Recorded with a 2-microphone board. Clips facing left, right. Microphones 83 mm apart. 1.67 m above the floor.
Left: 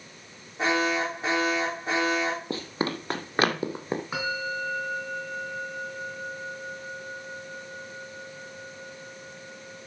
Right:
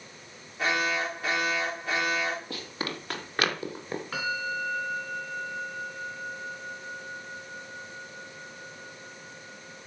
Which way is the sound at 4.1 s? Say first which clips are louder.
Left 1 dB; 15° left (ahead or behind).